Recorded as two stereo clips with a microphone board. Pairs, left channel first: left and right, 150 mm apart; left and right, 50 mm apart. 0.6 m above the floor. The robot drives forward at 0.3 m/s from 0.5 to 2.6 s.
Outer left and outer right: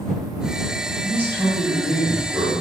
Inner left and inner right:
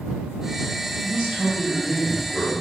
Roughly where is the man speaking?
Centre.